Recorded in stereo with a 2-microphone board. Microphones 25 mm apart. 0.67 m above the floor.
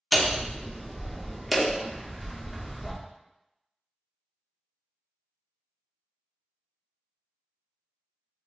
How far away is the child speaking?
No child speaking in this recording.